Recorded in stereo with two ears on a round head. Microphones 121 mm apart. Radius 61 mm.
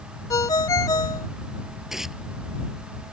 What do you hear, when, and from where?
0.3 s a ringtone: 30° left (ahead or behind)
1.9 s tearing paper: 5° right (ahead or behind)